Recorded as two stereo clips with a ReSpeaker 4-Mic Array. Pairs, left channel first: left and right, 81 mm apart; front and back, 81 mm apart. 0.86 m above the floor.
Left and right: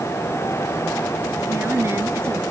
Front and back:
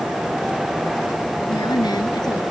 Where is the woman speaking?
30° right.